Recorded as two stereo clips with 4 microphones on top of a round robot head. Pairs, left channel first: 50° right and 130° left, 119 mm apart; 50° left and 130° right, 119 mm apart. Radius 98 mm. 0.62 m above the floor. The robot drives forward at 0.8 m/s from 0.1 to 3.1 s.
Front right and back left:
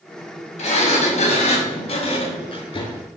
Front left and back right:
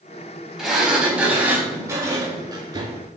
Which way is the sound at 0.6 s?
50° right.